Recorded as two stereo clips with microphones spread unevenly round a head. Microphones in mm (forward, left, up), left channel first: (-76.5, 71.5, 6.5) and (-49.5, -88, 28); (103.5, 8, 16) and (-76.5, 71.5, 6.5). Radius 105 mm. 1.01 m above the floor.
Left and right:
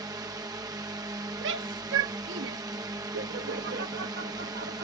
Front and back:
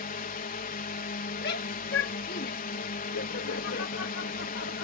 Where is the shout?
65° right.